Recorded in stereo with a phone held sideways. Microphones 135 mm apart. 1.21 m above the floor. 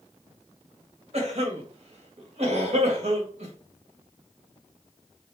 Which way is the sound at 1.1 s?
50° right (ahead or behind).